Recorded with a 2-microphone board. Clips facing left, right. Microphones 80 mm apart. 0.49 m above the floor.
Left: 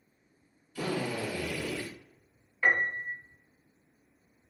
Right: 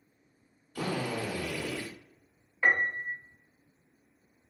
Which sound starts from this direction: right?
A drill, at 0.8 s.